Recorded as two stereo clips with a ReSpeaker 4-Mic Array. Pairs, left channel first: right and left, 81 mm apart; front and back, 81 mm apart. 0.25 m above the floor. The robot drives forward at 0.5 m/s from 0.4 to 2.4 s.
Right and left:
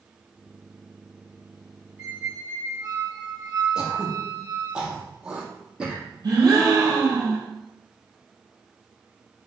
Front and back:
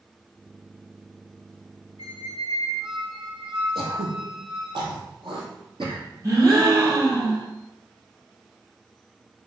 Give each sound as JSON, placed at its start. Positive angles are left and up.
{"t": 2.0, "sound": "a squeak", "azimuth_deg": 150, "distance_m": 1.6}
{"t": 3.8, "sound": "throat clearing", "azimuth_deg": 170, "distance_m": 2.5}
{"t": 6.2, "sound": "a gasp", "azimuth_deg": 130, "distance_m": 3.5}